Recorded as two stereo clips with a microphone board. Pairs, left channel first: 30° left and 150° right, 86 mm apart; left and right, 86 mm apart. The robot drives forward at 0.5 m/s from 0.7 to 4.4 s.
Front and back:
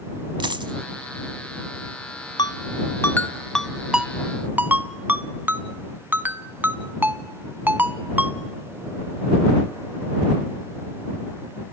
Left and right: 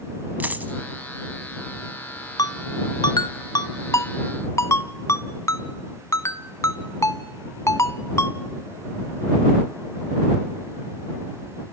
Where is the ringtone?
55° left, 0.7 m; by 8.4 s 140° left, 0.9 m.